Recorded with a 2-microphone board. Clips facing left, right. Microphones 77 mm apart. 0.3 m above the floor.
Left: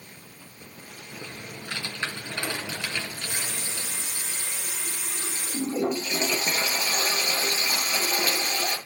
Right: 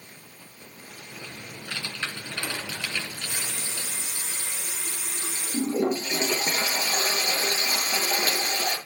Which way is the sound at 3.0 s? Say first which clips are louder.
Left 1 dB; 15° right (ahead or behind).